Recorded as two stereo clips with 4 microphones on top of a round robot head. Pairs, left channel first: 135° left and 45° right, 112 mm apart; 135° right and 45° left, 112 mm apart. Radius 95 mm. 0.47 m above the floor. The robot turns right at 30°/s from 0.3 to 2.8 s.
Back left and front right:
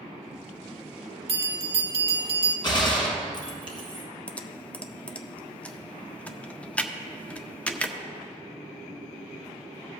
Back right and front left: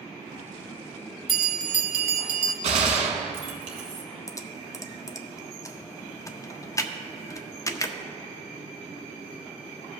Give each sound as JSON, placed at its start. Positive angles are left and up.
{"t": 1.3, "sound": "a bell", "azimuth_deg": -45, "distance_m": 1.3}
{"t": 2.6, "sound": "a gunshot", "azimuth_deg": 80, "distance_m": 1.2}
{"t": 4.3, "sound": "typing on a keyboard", "azimuth_deg": -155, "distance_m": 0.7}